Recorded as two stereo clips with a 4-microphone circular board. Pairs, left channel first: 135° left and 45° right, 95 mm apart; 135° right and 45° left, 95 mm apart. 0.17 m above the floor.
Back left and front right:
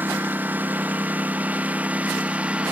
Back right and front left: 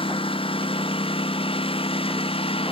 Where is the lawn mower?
115° right; by 2.7 s 120° right.